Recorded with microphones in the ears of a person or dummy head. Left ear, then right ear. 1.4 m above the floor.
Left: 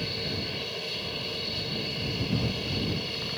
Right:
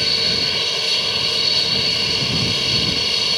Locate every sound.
0.0 s an aircraft: 55° right (ahead or behind)